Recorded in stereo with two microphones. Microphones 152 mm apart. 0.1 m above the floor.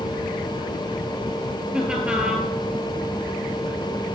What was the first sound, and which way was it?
Laughter, 5° right (ahead or behind).